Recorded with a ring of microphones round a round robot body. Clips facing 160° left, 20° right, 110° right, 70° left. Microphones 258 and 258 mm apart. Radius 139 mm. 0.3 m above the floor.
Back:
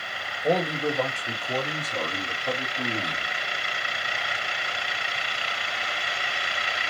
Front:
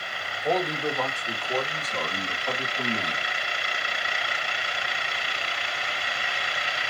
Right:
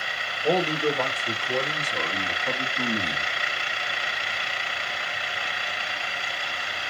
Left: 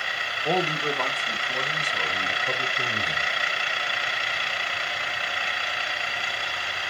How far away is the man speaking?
About 2.5 m.